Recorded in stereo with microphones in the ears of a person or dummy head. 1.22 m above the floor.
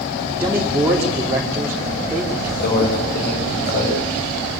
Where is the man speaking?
10° right (ahead or behind), 2.5 m.